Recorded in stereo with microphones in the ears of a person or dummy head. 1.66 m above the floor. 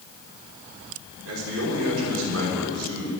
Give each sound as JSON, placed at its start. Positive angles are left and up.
{"t": 1.2, "sound": "a man speaking", "side_deg": -75, "distance_m": 5.5}